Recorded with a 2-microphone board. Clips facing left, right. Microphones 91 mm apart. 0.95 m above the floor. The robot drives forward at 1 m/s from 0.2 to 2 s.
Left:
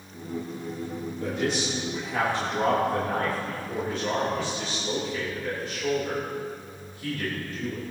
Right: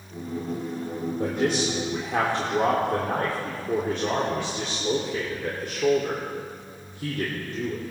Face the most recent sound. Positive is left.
turn(degrees=-70)  # may be behind; listen again after turning